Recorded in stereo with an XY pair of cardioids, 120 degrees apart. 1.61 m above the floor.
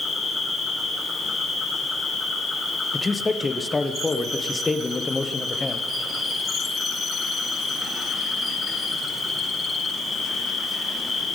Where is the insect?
30° left, 4.5 m.